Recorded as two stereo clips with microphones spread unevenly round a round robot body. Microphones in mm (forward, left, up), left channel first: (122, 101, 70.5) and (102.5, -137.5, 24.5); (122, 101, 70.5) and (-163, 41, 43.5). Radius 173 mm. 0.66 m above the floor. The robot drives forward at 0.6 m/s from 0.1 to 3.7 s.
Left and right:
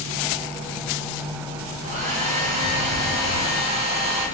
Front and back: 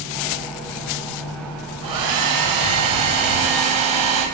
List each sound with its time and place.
1.8 s a hair dryer: 160° right, 4 m; by 4.2 s 165° right, 5 m